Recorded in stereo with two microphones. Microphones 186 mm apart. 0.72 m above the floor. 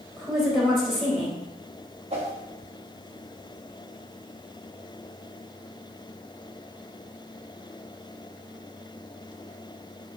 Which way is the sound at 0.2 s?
Centre (ahead or behind).